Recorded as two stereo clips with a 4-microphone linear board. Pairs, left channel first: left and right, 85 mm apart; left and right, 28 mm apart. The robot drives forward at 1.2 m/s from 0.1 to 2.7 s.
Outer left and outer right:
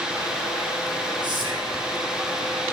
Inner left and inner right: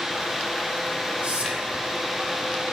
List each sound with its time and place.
1.2 s whispering: 60° right (ahead or behind), 3.5 m